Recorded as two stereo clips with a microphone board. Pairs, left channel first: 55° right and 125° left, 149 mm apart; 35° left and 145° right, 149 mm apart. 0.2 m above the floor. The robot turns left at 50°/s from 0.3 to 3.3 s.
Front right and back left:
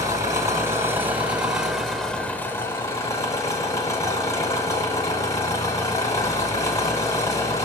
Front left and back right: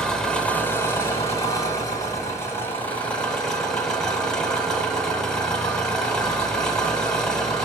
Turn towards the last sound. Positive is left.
turn(degrees=-45)